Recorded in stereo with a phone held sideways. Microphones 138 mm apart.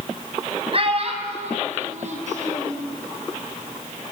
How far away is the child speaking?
About 4.5 m.